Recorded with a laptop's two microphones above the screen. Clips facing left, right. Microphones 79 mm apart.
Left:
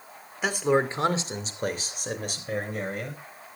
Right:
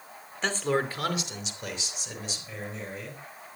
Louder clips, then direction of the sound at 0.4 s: Left 4 dB; 10° left (ahead or behind).